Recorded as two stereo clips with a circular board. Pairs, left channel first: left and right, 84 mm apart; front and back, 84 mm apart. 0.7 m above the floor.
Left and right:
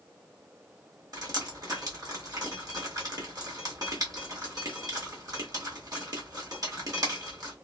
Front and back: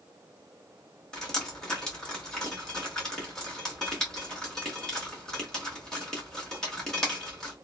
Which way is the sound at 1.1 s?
80° right.